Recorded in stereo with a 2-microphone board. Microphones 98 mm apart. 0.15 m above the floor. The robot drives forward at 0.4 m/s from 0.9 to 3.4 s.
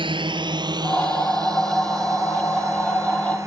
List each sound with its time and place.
0.0 s a drone: 55° right (ahead or behind); by 3.5 s 30° right (ahead or behind)